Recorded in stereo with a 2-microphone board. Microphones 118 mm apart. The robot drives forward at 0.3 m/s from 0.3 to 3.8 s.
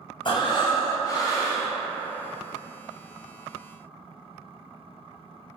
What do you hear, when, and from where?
0.2 s breathing: 40° left (ahead or behind), 0.5 m; by 1.7 s 25° left (ahead or behind), 0.9 m